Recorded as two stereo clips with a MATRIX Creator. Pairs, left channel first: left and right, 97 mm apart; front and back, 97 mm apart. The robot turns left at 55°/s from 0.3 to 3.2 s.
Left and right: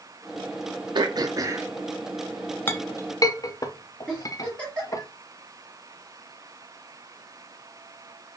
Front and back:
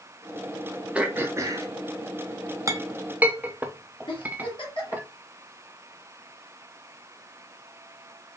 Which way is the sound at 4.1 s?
10° left.